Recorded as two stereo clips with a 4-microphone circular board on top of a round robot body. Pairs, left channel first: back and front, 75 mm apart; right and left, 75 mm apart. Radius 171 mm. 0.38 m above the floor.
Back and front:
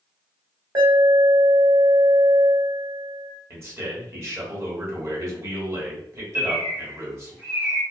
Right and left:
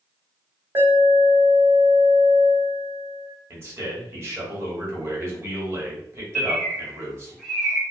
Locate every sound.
0.8 s an alarm: 35° left, 1.2 m
3.5 s a man speaking: 45° left, 1.4 m
6.3 s a bird: 5° left, 1.2 m